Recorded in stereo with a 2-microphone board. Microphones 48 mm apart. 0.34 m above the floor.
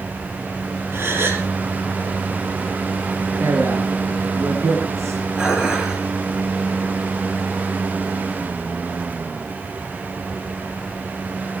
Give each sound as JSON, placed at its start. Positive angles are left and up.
{"t": 0.9, "sound": "a gasp", "side_deg": -55, "distance_m": 3.5}
{"t": 3.4, "sound": "a man speaking", "side_deg": -75, "distance_m": 4.5}
{"t": 5.4, "sound": "dishes clattering", "side_deg": -15, "distance_m": 4.0}